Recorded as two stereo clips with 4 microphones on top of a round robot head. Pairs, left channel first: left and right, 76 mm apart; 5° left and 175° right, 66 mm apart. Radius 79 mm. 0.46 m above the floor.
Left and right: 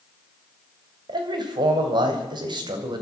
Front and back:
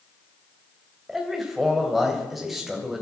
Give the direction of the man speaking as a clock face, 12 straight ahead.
3 o'clock.